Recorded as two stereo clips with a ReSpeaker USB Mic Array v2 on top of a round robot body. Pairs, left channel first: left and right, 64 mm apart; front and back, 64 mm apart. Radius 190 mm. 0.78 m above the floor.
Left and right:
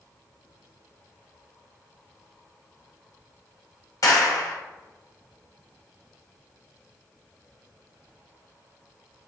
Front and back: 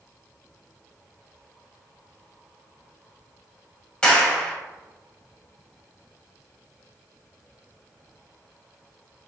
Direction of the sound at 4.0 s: 70° left.